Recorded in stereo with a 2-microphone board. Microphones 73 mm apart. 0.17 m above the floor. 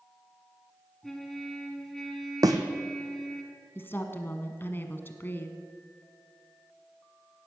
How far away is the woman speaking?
About 1.3 m.